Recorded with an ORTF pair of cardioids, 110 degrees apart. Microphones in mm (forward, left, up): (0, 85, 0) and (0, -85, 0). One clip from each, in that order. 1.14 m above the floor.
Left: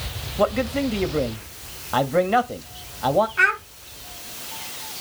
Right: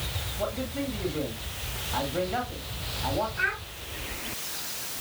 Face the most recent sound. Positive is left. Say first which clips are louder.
# left 10 dB
turn(degrees=65)